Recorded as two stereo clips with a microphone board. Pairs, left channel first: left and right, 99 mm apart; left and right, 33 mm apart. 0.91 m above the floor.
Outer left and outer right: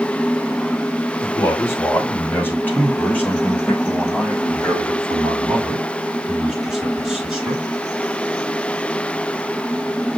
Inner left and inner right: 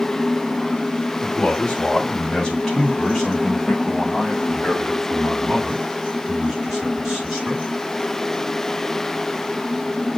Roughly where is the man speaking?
Left.